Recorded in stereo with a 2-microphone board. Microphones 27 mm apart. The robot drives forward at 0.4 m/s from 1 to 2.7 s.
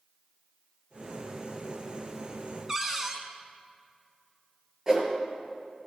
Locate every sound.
2.7 s a cupboard door: 20° right (ahead or behind), 1.3 m
4.9 s a whoosh: 20° right (ahead or behind), 2.5 m